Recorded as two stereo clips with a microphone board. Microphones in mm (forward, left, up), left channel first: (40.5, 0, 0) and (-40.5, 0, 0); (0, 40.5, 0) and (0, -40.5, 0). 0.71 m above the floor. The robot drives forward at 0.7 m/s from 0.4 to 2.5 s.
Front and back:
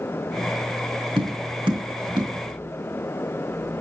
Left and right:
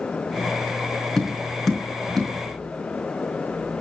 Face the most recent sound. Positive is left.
turn(degrees=175)